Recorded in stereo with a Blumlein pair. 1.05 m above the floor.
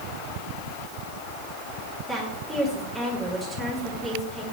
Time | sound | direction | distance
2.1 | a woman speaking | 15° right | 2.5 m